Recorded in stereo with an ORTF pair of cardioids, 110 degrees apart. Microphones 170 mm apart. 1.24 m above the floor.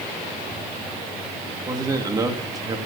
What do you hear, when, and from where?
1.7 s a man speaking: 20° right, 2.5 m